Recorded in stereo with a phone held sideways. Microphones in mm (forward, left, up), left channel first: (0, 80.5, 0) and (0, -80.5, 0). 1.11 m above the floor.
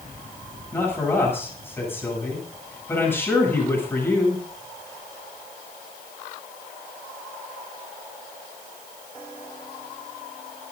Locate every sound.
0.7 s a man speaking: 15° left (ahead or behind), 9.5 m